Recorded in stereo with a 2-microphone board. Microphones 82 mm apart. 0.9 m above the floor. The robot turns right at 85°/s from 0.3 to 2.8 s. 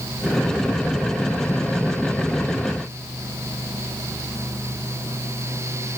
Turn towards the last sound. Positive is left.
No sound to turn to.